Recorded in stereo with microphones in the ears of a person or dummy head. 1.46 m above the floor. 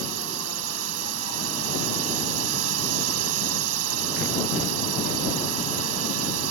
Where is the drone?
75° right (ahead or behind).